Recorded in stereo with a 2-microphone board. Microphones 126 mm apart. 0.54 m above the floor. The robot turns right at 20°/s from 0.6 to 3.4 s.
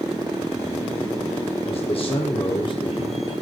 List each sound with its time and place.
1.6 s a man speaking: 95° left, 1.0 m; by 3.3 s 130° left, 1.0 m